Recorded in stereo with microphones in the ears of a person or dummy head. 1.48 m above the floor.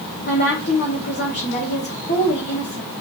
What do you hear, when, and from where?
0.3 s a woman speaking: 50° left (ahead or behind), 1.1 m